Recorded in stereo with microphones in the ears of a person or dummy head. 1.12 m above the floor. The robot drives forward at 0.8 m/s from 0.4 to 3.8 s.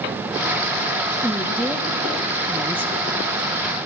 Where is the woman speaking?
5° right (ahead or behind), 1.8 m; by 2.9 s 10° right (ahead or behind), 0.6 m.